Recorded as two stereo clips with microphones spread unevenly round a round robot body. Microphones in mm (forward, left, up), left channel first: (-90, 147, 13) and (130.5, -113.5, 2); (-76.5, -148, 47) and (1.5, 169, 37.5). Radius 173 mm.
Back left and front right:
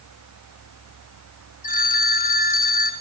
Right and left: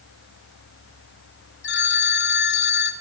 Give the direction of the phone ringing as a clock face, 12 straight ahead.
5 o'clock.